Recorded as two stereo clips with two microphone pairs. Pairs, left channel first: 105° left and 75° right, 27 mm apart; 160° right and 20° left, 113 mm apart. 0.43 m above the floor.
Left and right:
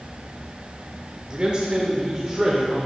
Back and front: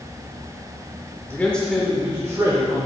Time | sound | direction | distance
1.3 | a man speaking | 100° right | 0.9 m